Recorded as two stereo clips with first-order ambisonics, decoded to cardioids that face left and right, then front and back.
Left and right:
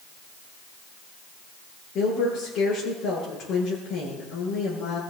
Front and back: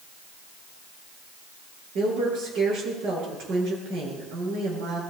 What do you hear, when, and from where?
1.9 s a woman speaking: 140° left, 10 m